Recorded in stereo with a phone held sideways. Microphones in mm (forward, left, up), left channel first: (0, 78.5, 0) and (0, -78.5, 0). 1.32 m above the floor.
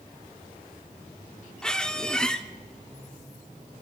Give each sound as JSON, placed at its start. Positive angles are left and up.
{"t": 1.6, "sound": "a squeak", "side_deg": 5, "distance_m": 0.9}